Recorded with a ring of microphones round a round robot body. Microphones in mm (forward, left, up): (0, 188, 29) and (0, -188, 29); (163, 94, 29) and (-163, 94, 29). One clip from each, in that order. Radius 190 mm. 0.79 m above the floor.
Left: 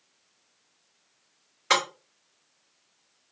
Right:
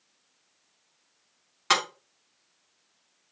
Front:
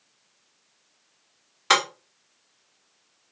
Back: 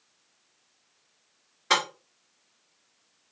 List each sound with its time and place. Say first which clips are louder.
1.7 s breaking glass: left 1 dB, front 4 dB; 40° right, 1.4 m